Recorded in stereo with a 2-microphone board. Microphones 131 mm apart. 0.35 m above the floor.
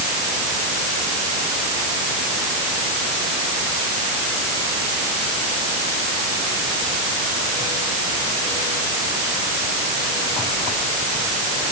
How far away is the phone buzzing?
No phone buzzing in this recording.